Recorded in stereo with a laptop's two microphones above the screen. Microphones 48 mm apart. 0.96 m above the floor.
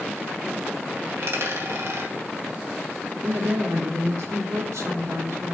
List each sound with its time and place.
1.1 s a dropped coin: 70° right (ahead or behind), 2.5 m
3.2 s a woman speaking: 80° right, 1.7 m